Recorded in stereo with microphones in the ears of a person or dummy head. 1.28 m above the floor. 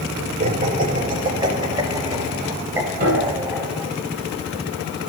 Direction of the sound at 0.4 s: 35° right (ahead or behind).